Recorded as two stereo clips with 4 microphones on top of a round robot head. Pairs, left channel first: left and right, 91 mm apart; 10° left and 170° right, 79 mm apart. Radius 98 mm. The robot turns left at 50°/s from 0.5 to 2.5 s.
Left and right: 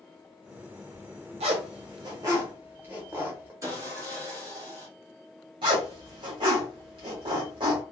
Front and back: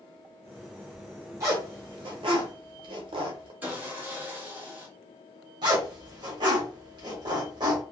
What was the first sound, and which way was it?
A zipper, 105° right.